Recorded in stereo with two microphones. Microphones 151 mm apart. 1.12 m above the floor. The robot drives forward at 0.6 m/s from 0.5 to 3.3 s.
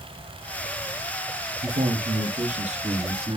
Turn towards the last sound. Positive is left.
turn(degrees=-45)  # may be behind; listen again after turning